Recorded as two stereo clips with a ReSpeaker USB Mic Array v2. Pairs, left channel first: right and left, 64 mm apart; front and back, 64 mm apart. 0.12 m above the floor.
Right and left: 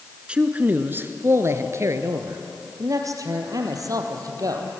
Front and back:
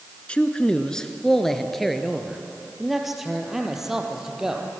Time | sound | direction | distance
0.3 | a man speaking | 45° left | 1.3 m